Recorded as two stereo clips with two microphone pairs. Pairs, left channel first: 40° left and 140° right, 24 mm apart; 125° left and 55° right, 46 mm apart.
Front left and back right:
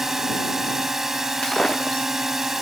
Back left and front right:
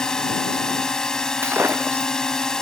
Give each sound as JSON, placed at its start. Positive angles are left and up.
{"t": 0.0, "sound": "a drone", "azimuth_deg": 175}
{"t": 1.4, "sound": "breaking glass", "azimuth_deg": -20}